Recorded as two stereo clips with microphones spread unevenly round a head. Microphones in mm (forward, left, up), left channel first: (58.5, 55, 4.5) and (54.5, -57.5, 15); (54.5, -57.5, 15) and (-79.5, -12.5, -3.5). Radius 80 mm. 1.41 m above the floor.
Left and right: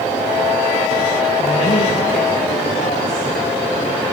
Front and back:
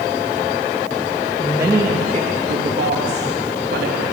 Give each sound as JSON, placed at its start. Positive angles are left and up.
{"t": 1.4, "sound": "a woman speaking", "azimuth_deg": 80, "distance_m": 2.5}